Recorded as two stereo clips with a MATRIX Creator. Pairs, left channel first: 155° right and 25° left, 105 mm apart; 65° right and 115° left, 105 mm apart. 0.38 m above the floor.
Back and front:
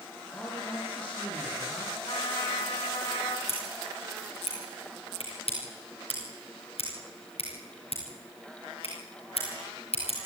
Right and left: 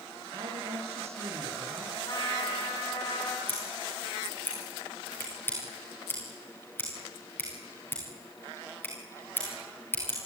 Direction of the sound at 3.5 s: 140° right.